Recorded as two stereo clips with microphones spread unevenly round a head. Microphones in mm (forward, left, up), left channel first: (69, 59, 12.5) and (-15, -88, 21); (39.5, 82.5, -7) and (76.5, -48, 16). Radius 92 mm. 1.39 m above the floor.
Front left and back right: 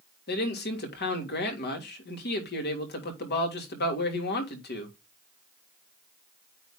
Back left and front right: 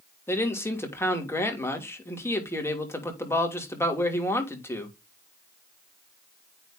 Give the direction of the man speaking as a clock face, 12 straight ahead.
11 o'clock.